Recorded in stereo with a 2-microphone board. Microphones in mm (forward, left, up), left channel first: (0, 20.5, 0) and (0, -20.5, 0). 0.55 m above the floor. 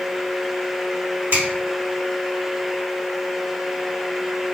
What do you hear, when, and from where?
1.3 s a finger snap: 60° right (ahead or behind), 1.8 m